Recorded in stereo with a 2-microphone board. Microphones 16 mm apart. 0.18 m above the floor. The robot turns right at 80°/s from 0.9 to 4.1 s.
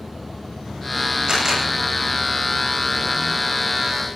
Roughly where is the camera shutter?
Right.